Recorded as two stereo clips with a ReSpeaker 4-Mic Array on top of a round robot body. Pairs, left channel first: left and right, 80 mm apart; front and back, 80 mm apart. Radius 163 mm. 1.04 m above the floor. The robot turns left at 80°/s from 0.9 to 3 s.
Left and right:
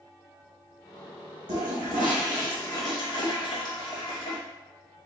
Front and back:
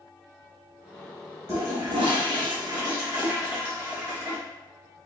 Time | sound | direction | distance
1.5 | a toilet flushing | 120° right | 1.0 m